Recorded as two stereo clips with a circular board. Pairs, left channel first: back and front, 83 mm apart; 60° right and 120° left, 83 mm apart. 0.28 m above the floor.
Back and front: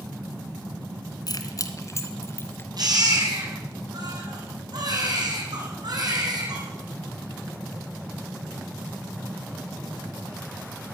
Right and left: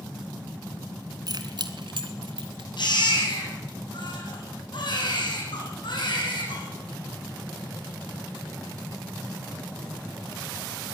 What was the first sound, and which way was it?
Keys jangling, 150° left.